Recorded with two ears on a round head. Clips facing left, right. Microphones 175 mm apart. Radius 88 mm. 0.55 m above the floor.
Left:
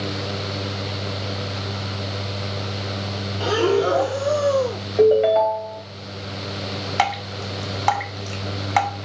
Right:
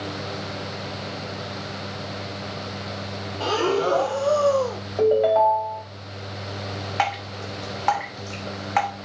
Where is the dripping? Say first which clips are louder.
Left 3 dB; 50° left (ahead or behind), 1.2 m.